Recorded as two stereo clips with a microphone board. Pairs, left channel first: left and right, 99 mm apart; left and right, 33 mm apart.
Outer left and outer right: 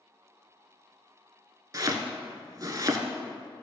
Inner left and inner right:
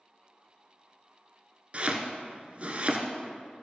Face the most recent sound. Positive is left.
turn(degrees=-40)  # may be behind; listen again after turning